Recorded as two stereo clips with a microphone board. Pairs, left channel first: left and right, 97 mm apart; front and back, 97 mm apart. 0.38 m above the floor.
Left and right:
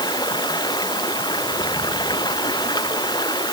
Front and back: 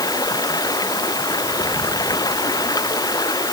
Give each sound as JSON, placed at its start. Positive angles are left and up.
{"t": 0.0, "sound": "running water", "azimuth_deg": 50}